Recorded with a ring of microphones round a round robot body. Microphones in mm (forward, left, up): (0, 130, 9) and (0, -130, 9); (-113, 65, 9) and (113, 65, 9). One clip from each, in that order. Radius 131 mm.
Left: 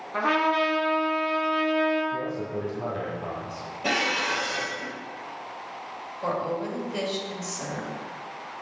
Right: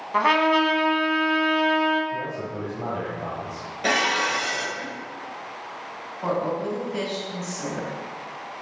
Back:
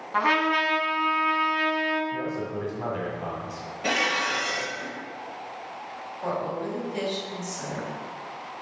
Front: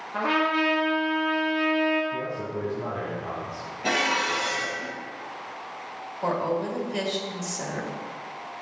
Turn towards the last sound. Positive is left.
turn(degrees=0)